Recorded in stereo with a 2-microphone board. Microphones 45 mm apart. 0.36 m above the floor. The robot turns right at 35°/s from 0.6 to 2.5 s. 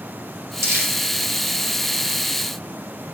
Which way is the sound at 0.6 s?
85° right.